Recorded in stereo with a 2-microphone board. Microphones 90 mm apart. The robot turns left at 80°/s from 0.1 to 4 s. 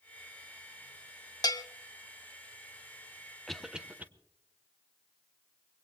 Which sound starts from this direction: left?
A bell, at 1.4 s.